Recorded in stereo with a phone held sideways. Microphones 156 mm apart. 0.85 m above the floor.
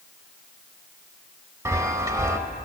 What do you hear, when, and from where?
1.6 s a chime: 20° right (ahead or behind), 0.7 m